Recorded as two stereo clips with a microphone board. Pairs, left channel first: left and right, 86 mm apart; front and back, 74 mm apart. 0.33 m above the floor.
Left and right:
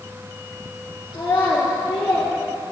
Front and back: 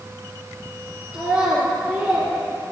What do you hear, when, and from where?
1.1 s a child speaking: 125° left, 3 m; by 2.3 s 145° left, 3 m